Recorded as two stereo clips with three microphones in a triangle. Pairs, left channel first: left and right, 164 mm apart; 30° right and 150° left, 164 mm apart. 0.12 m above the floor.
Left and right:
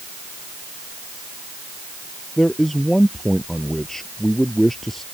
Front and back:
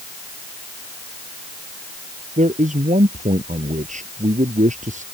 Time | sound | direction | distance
2.4 | a man speaking | 175° left | ?